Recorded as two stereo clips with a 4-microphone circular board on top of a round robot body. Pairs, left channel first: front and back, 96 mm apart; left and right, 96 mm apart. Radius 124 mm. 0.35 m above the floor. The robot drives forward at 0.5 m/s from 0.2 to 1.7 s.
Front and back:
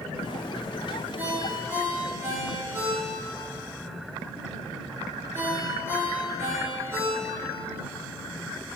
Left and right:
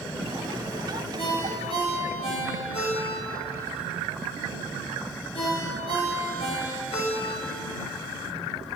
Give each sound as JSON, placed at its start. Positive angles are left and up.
{"t": 1.2, "sound": "a ringtone", "azimuth_deg": 110, "distance_m": 4.0}